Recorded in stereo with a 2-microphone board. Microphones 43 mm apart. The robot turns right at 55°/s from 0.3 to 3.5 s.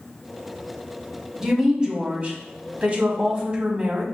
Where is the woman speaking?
160° right, 1.2 m; by 4.0 s 45° right, 1.2 m.